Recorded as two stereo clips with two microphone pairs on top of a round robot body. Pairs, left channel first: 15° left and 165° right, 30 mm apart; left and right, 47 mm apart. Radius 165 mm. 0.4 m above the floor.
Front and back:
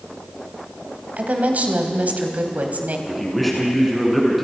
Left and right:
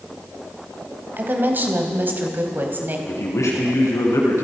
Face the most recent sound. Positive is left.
turn(degrees=105)